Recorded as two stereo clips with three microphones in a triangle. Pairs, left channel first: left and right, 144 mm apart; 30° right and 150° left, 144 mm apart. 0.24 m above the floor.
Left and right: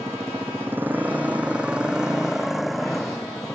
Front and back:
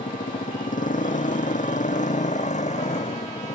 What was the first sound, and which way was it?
A motorcycle, 20° right.